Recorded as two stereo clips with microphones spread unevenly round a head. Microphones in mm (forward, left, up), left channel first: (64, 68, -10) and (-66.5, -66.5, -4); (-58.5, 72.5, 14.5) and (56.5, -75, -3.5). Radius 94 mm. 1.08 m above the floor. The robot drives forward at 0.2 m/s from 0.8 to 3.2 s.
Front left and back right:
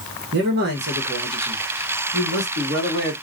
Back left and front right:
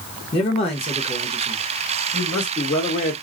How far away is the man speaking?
About 1.3 m.